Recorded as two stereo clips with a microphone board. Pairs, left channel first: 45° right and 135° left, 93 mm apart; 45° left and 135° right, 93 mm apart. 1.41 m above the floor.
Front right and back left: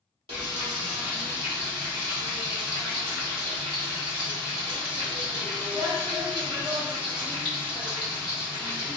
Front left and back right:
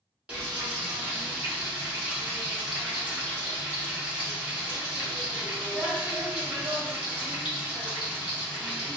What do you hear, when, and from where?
0.3 s frying: 150° left, 1.4 m